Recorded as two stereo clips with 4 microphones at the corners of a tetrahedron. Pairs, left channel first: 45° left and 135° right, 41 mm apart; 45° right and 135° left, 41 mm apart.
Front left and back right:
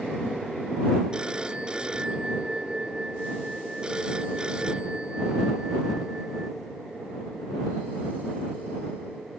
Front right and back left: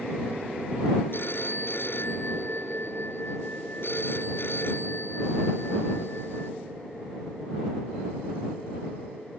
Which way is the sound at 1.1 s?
70° right.